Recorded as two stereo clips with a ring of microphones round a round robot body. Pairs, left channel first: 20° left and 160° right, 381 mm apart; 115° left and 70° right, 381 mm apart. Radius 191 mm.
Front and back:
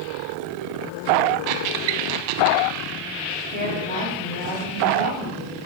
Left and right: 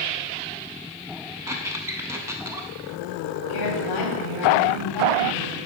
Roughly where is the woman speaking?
Left.